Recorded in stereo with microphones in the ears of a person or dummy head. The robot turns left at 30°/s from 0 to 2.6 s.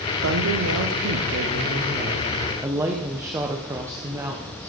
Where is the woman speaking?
95° right, 1.3 m; by 4.7 s 165° right, 1.3 m.